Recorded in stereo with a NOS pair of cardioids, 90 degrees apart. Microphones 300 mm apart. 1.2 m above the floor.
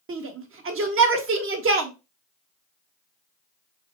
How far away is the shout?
About 1.4 m.